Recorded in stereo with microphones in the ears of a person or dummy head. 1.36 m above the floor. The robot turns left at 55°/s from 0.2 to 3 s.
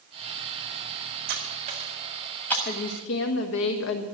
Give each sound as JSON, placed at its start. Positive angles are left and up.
{"t": 1.3, "sound": "cutlery clinking", "side_deg": -55, "distance_m": 1.9}
{"t": 2.6, "sound": "a woman speaking", "side_deg": 50, "distance_m": 1.4}